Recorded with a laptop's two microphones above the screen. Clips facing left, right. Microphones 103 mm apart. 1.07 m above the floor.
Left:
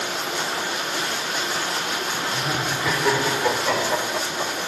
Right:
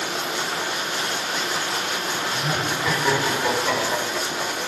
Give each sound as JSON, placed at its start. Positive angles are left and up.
{"t": 2.3, "sound": "laughter", "side_deg": 0, "distance_m": 3.5}